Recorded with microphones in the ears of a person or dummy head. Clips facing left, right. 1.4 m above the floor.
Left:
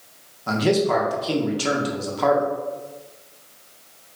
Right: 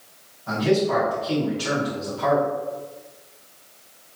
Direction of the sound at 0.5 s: 75° left (ahead or behind).